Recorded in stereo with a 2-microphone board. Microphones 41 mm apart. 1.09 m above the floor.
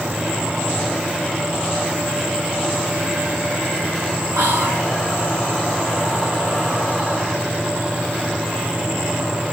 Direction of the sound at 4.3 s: 70° right (ahead or behind).